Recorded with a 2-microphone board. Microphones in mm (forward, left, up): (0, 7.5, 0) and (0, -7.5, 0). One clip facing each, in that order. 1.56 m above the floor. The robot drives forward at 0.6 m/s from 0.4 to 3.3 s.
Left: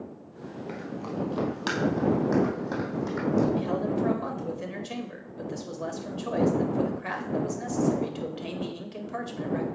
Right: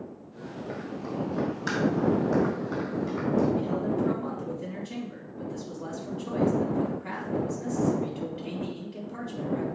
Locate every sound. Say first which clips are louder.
0.7 s running footsteps: even; 45° left (ahead or behind), 2 m; by 3.5 s 55° left (ahead or behind), 4.5 m
3.5 s a man speaking: even; 80° left, 2 m